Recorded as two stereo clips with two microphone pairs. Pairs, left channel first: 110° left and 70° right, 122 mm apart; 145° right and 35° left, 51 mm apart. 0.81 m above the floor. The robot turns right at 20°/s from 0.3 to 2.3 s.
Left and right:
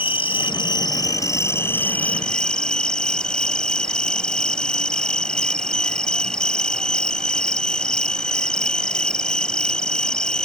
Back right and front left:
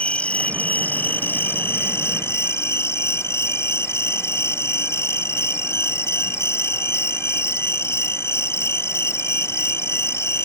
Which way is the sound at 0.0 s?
150° left.